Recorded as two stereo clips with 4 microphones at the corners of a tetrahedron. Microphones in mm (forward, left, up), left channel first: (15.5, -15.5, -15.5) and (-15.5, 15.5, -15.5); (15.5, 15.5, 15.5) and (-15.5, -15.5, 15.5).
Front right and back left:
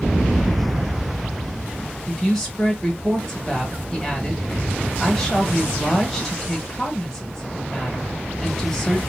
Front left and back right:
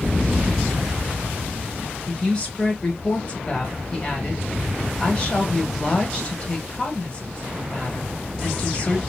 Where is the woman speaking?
20° left, 0.9 m.